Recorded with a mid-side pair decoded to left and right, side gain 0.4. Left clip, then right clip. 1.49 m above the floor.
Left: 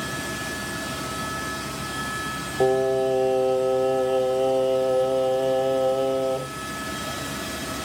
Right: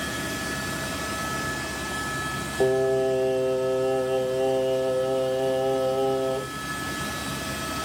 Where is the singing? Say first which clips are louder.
Left 1 dB; 5° left, 1.1 m.